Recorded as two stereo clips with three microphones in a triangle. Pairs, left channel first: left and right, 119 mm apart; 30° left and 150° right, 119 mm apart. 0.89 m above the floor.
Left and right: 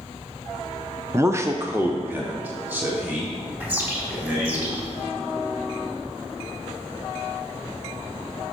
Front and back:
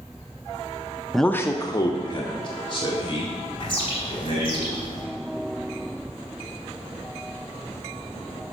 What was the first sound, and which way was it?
A man speaking, 65° right.